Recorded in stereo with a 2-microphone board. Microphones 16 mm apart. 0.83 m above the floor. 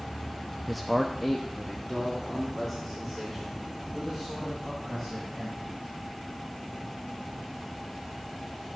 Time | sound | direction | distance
0.7 | a man speaking | centre (ahead or behind) | 0.5 m